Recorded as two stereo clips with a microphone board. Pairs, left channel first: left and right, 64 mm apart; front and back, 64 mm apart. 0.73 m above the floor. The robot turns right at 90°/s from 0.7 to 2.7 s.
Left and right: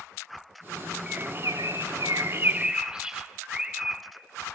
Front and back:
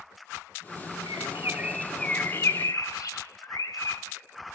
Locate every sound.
1.1 s a bird: 160° right, 0.6 m; by 4.0 s 15° right, 0.6 m